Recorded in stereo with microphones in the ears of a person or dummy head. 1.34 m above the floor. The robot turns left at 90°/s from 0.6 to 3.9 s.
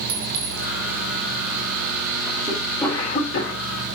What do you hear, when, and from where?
0.1 s a clink: 80° right, 2.5 m
2.5 s a cough: 160° right, 4.5 m; by 3.6 s 100° left, 4.5 m